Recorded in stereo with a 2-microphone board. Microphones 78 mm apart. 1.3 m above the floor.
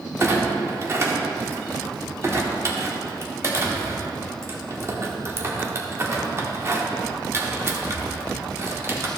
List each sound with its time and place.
0.2 s a clunk: 35° right (ahead or behind), 1.2 m